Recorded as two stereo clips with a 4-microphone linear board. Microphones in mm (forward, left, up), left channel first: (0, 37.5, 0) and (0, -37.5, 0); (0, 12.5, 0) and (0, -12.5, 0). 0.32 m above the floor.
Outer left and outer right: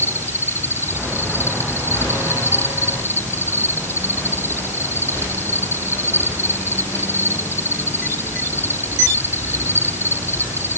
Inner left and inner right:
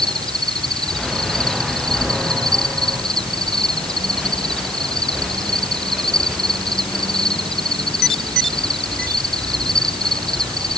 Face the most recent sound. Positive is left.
turn(degrees=30)  # may be behind; listen again after turning